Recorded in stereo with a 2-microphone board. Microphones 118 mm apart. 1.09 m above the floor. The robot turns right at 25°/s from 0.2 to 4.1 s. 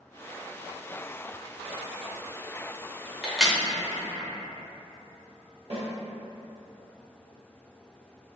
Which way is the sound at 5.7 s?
55° right (ahead or behind).